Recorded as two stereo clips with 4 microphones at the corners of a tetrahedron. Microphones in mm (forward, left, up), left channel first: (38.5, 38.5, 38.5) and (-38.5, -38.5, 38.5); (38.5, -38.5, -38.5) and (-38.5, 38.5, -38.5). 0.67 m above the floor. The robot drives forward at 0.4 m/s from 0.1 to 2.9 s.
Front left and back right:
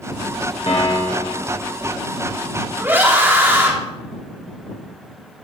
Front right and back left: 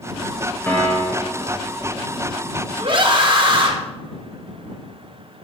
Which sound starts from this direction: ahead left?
A piano, at 0.7 s.